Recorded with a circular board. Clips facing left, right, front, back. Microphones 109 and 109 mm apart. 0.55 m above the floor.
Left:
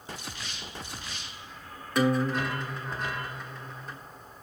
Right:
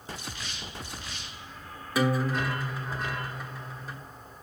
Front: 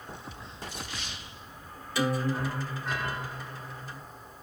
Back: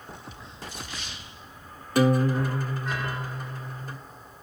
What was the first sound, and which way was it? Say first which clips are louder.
A guitar: left 1 dB, back 7 dB; 175° right.